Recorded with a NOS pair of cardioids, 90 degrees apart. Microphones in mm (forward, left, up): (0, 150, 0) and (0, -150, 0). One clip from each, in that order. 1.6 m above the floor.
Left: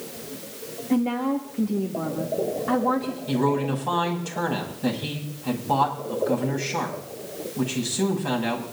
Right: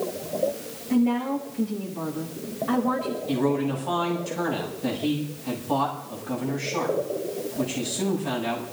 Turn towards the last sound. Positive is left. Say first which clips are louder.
# left 2 dB
turn(degrees=40)